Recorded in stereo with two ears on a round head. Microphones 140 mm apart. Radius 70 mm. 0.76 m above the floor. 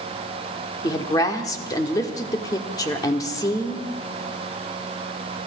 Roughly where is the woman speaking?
Left.